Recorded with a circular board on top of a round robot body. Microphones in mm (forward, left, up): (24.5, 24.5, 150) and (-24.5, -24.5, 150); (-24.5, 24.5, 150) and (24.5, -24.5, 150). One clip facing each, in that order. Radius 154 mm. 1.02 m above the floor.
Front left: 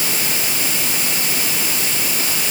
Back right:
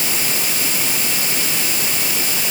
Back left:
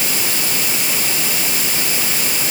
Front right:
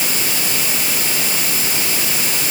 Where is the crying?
No crying in this recording.